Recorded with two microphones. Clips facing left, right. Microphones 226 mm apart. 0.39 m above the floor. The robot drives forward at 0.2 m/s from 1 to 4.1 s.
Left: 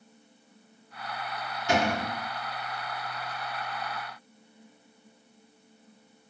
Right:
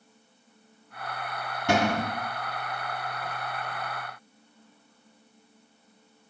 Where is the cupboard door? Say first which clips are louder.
Right 2 dB; 70° right (ahead or behind), 0.9 m; by 2.1 s 65° right (ahead or behind), 0.9 m.